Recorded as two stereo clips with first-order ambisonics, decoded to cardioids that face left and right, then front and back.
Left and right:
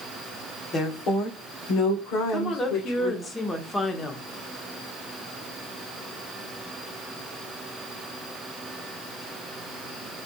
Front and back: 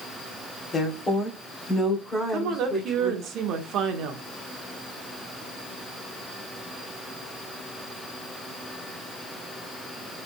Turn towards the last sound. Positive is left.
turn(degrees=165)